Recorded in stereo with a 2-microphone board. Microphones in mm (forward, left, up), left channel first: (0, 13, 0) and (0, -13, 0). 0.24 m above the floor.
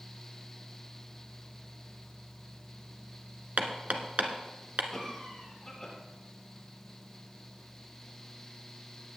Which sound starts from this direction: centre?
A cough, at 4.9 s.